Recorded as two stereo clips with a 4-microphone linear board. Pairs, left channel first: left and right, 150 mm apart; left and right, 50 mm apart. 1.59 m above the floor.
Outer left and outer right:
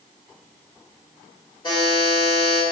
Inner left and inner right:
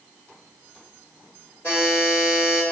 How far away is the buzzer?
About 1.6 m.